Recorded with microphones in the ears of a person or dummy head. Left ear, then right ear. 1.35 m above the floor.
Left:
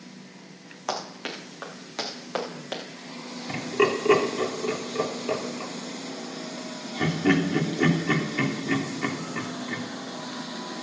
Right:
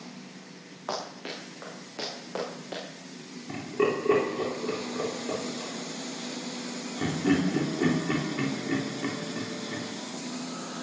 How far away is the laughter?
About 3.5 m.